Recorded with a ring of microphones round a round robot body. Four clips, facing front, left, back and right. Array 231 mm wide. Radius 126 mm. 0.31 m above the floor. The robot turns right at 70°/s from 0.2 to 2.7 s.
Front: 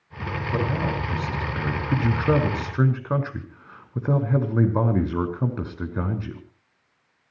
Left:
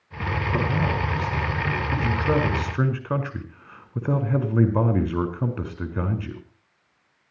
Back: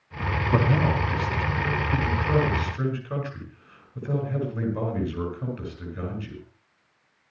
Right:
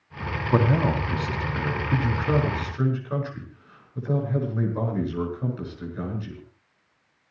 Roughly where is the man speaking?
Behind right.